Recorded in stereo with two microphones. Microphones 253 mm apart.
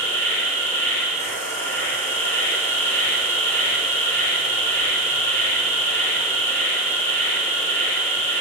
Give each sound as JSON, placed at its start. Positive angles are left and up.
{"t": 0.0, "sound": "an insect", "side_deg": 10, "distance_m": 3.0}